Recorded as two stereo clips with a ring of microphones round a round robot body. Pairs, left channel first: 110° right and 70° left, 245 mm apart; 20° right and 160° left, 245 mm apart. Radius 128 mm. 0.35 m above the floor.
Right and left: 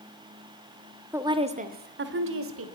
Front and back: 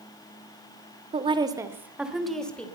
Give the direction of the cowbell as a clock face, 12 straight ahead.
No cowbell in this recording.